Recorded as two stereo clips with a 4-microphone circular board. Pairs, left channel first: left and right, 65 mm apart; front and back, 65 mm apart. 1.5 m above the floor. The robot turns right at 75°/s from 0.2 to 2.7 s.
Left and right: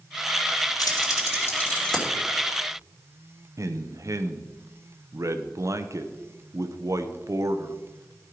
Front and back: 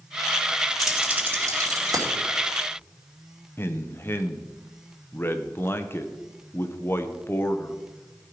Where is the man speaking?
55° right, 0.9 m.